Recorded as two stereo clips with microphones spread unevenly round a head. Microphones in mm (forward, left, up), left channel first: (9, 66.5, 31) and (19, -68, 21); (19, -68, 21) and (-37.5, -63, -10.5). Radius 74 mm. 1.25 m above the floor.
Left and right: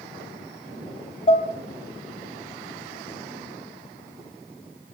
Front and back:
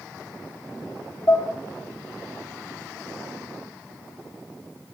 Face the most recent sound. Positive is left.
turn(degrees=45)